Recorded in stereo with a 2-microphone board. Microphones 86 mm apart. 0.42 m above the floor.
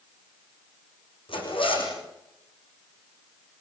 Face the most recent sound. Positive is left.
turn(degrees=90)